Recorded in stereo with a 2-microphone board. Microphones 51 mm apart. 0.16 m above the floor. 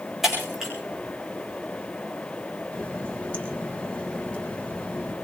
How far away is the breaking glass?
About 6.5 m.